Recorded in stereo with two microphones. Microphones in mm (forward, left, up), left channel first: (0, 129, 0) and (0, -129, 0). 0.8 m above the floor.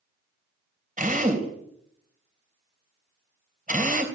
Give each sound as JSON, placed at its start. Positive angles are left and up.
{"t": 1.0, "sound": "a drill", "side_deg": -35, "distance_m": 3.5}